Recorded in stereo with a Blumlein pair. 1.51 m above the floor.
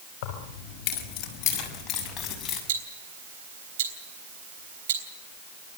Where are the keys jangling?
45° left, 5 m; by 2.6 s 25° left, 7.5 m.